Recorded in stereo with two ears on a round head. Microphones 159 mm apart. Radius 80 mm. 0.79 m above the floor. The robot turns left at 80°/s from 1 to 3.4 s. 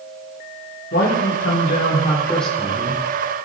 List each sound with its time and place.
0.9 s a man speaking: 120° left, 2 m; by 3.0 s 45° right, 2 m